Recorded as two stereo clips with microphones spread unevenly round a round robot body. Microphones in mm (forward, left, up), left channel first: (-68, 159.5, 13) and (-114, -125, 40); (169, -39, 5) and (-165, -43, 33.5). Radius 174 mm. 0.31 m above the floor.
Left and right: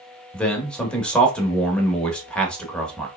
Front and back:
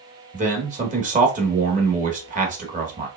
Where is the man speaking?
145° left, 0.9 m.